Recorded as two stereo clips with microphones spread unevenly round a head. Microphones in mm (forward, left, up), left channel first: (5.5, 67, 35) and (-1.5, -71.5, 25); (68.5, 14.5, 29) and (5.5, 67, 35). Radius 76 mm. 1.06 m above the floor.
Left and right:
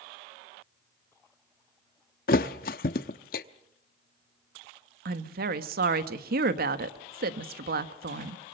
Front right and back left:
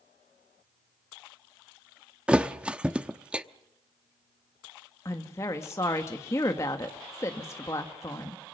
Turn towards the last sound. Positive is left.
turn(degrees=-105)